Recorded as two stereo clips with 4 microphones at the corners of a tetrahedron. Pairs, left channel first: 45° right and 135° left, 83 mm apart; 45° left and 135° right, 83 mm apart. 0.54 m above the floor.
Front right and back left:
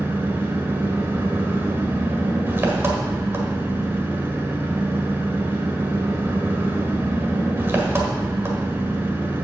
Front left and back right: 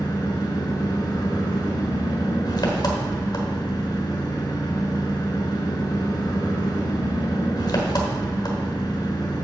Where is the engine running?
75° left, 1.3 m.